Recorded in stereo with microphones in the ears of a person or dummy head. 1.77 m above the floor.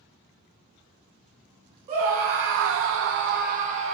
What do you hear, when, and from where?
1.9 s a scream: 40° right (ahead or behind), 0.6 m; by 4.0 s 35° right (ahead or behind), 0.8 m